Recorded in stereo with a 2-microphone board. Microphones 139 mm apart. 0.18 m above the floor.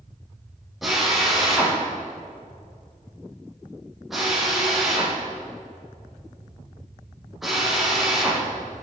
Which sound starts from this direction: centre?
A drill, at 0.8 s.